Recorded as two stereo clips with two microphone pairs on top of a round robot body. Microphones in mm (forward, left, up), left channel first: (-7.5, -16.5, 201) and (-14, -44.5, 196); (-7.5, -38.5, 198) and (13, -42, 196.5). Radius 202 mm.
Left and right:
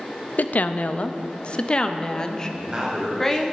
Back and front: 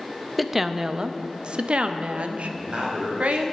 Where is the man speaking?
40° right, 4 m.